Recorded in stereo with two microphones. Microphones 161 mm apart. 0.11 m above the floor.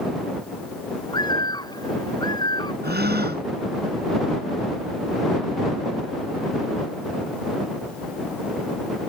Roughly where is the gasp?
Right.